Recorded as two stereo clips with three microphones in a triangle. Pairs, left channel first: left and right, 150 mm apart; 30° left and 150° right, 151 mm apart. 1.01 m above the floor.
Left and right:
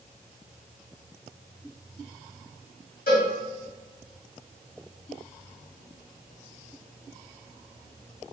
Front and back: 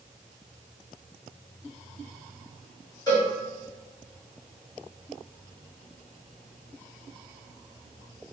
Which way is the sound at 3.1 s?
95° left.